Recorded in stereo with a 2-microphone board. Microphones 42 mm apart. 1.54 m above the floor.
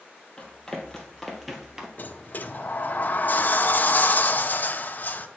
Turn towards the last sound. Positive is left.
turn(degrees=45)  # may be behind; listen again after turning